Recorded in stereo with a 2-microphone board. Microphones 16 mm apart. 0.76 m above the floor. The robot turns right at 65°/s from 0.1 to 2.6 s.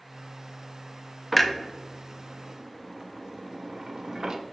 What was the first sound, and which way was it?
A clunk, 10° left (ahead or behind).